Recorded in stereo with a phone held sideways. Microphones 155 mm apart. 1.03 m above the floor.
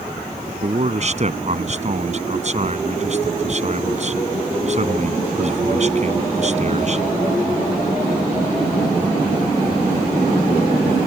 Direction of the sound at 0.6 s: 45° right (ahead or behind).